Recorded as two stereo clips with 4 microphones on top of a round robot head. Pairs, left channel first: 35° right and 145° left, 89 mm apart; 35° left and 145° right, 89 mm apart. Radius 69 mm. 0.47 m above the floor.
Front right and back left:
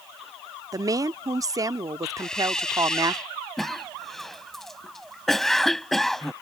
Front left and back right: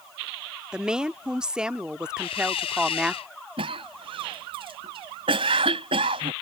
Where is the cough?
125° right.